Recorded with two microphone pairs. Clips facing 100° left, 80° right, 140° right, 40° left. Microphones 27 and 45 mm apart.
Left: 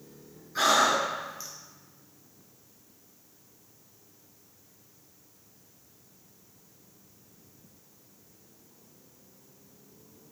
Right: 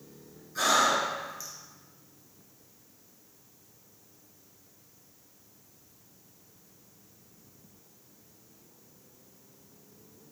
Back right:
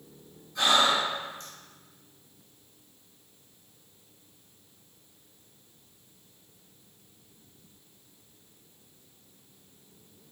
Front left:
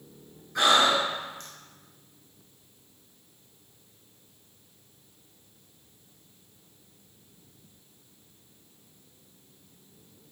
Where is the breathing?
40° left, 0.9 m.